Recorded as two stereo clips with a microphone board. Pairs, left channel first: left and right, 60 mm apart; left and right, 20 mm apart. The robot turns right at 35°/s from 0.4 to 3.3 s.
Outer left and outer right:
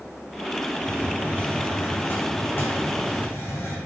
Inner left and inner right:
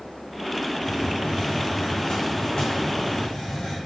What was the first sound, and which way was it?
A hiss, 10° left.